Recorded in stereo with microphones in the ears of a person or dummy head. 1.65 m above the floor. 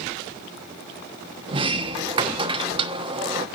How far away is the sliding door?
About 1.0 m.